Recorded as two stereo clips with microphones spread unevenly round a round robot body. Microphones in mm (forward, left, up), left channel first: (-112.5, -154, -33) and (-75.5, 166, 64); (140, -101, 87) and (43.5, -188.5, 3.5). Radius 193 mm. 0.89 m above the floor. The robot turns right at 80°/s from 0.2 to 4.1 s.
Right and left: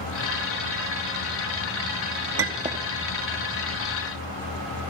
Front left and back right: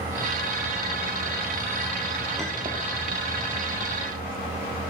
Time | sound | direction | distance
2.4 | a clink | 135° left | 1.4 m